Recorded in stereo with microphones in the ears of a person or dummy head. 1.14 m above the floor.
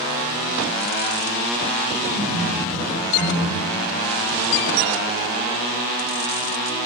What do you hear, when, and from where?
2.0 s laughter: 60° left (ahead or behind), 4.5 m; by 3.8 s 70° left (ahead or behind), 6.5 m